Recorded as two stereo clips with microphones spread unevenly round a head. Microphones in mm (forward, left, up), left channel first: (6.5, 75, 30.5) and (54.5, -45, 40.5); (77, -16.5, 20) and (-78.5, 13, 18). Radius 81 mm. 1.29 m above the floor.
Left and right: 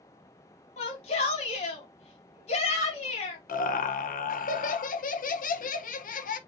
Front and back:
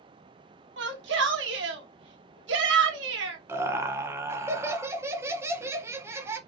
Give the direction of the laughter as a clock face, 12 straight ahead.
9 o'clock.